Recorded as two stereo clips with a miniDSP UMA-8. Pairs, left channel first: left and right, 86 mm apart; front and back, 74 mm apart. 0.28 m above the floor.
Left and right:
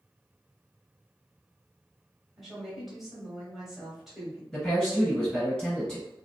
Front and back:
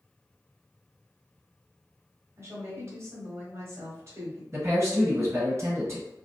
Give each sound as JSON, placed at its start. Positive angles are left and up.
{"t": 2.4, "sound": "a woman speaking", "azimuth_deg": 180, "distance_m": 1.2}
{"t": 4.5, "sound": "a man speaking", "azimuth_deg": 165, "distance_m": 1.9}